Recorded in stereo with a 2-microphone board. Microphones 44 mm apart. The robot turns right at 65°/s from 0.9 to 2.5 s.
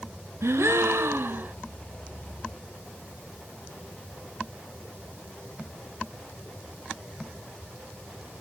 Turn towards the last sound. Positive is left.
turn(degrees=15)